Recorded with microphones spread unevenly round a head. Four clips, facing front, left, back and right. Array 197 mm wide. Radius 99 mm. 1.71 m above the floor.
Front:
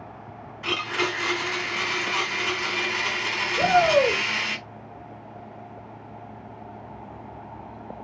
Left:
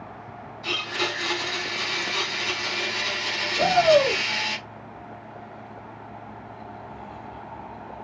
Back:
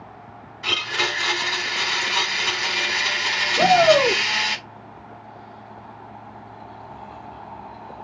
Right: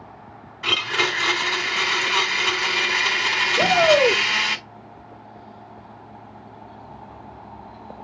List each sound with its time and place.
0.6 s a blender: 110° right, 4 m
3.6 s a shout: 155° right, 4 m